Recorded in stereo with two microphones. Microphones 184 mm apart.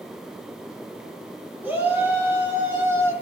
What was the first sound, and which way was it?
A shout, 10° right (ahead or behind).